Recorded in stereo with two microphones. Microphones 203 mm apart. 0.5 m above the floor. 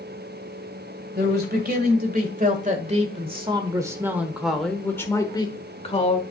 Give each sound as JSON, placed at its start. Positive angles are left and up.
{"t": 1.1, "sound": "a man speaking", "side_deg": -55, "distance_m": 2.0}